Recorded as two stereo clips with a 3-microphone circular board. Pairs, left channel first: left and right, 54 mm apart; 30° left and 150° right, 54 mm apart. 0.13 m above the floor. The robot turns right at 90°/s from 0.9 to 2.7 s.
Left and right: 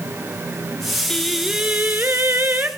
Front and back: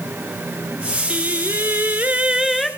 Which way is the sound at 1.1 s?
165° left.